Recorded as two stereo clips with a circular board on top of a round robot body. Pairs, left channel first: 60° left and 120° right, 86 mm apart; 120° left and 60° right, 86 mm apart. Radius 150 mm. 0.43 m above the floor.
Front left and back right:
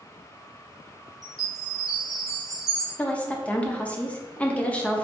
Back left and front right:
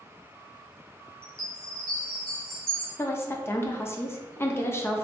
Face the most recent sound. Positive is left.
turn(degrees=120)